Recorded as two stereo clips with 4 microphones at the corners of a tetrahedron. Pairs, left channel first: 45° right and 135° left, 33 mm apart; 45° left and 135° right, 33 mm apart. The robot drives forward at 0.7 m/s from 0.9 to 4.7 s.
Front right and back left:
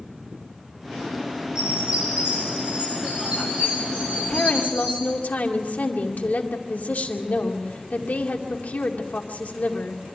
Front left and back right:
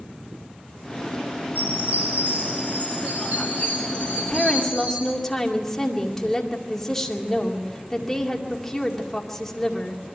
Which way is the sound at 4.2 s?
25° right.